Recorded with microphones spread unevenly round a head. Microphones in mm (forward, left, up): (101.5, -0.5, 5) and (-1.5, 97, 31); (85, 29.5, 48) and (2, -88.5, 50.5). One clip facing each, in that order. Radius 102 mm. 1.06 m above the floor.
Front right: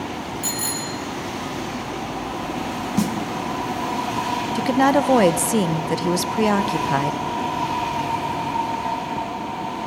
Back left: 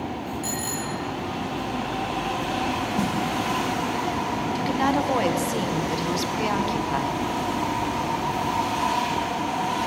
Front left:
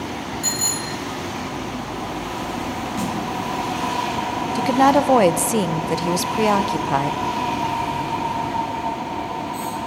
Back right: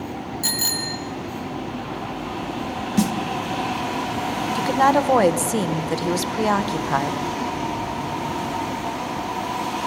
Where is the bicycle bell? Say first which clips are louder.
Front right 1 dB, front left 1 dB; 85° right, 2 m.